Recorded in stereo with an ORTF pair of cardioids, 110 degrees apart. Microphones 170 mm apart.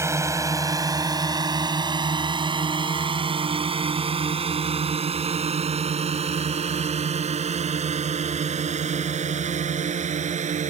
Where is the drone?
15° right; by 10.7 s 45° right.